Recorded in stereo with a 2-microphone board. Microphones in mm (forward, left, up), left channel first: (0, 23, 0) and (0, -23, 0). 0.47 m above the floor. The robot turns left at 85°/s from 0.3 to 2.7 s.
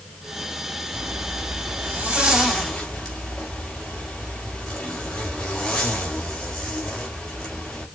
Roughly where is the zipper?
Ahead right.